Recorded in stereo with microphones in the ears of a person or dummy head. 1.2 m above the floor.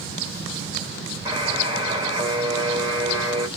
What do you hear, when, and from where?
1.2 s a buzzer: 15° right (ahead or behind), 1.3 m